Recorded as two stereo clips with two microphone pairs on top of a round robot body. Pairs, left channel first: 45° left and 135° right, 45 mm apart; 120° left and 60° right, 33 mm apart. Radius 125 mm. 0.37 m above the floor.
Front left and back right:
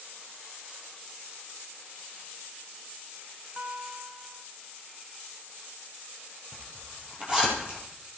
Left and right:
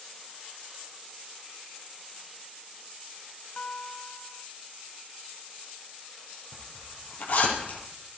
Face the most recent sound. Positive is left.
turn(degrees=160)